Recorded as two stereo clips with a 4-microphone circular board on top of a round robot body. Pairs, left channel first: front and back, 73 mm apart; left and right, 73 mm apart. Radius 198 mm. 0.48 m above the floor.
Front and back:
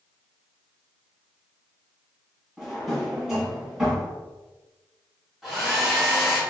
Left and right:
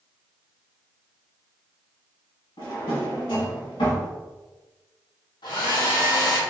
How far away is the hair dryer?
About 1.4 m.